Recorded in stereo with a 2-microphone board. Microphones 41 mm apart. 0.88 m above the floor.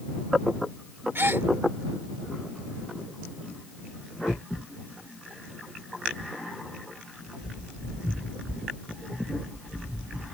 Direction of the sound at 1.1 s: 80° right.